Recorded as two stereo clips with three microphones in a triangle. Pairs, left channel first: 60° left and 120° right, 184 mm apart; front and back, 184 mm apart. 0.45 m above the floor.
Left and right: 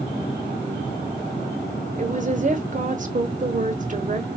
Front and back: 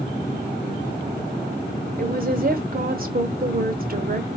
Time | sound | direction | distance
2.0 | a woman speaking | 155° right | 1.6 m